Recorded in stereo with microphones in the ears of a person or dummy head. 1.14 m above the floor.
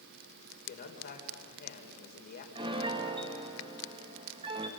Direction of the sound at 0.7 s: 50° left (ahead or behind).